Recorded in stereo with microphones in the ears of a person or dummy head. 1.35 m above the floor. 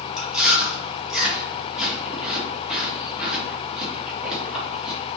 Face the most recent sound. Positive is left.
turn(degrees=0)  # may be behind; listen again after turning